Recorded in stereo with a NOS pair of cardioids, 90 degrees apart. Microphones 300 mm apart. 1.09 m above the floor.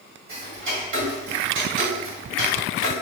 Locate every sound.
0.3 s ticking: 40° right, 1.8 m